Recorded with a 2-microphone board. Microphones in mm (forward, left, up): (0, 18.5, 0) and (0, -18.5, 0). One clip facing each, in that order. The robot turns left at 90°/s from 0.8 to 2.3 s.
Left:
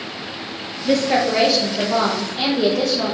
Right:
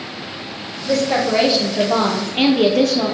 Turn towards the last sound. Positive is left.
turn(degrees=-85)